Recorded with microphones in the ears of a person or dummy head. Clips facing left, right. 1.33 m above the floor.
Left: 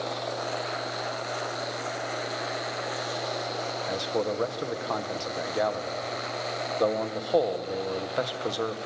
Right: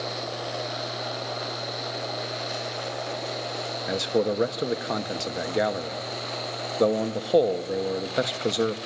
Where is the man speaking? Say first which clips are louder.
Right 5 dB; 25° right (ahead or behind), 1.3 m.